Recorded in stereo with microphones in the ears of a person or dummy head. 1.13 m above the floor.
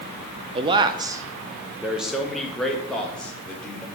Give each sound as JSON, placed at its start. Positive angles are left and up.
{"t": 0.6, "sound": "a man speaking", "side_deg": -30, "distance_m": 0.7}